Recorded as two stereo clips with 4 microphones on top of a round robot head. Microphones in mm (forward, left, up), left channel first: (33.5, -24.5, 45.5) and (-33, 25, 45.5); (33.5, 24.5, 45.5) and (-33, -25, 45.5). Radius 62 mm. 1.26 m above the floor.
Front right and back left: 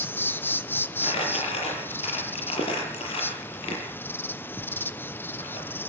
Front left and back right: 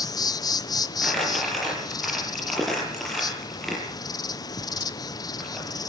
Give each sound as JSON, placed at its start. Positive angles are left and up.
{"t": 0.0, "sound": "an insect", "azimuth_deg": 20, "distance_m": 1.1}
{"t": 1.0, "sound": "crumpling", "azimuth_deg": -50, "distance_m": 6.5}